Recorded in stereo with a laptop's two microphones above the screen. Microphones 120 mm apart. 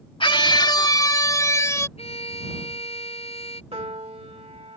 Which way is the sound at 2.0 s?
55° left (ahead or behind).